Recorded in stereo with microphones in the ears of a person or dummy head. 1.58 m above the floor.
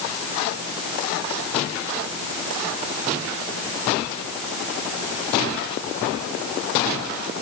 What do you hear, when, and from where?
Only background noise.